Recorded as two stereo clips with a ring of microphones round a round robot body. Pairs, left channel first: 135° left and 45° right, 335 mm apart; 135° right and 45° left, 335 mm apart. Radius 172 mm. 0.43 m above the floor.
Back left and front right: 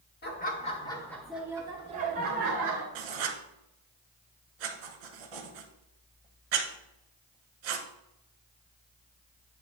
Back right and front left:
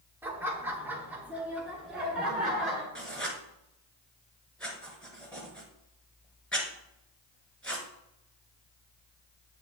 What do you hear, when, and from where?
0.2 s laughter: 125° left, 1.2 m; by 2.9 s 45° right, 1.4 m
3.0 s writing: 50° right, 1.1 m